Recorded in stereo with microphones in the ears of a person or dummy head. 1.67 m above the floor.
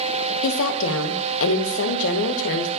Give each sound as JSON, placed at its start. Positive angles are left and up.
{"t": 0.4, "sound": "a woman speaking", "side_deg": 75, "distance_m": 0.9}